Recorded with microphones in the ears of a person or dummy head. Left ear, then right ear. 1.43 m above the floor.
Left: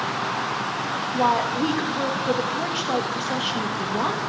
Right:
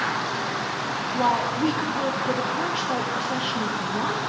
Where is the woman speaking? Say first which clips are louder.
Left 2 dB; 20° left (ahead or behind), 1.5 m.